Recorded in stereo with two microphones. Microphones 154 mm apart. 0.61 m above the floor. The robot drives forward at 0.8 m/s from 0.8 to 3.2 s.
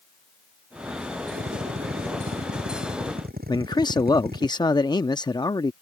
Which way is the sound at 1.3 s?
90° right.